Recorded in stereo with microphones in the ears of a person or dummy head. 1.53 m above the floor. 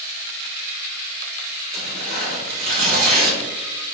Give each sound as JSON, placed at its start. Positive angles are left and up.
{"t": 1.7, "sound": "tearing paper", "side_deg": -50, "distance_m": 1.3}